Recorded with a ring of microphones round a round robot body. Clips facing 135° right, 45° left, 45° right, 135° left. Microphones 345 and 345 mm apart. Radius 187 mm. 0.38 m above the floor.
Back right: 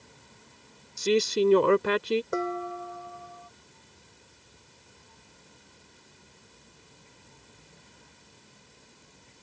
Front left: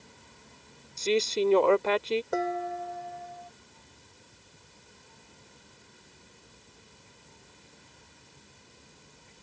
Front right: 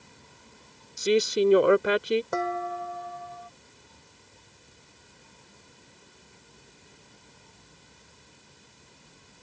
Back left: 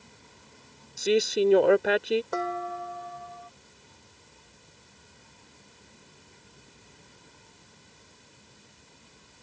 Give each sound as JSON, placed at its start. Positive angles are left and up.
{"t": 1.0, "sound": "a man speaking", "azimuth_deg": -120}
{"t": 2.3, "sound": "dishes clattering", "azimuth_deg": -50}